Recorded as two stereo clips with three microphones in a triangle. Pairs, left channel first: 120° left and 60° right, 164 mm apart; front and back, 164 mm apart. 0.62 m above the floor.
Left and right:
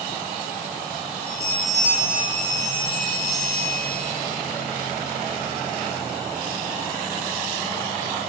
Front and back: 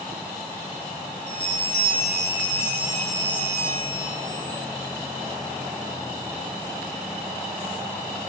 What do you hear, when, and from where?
1.3 s a bell: 15° right, 4.5 m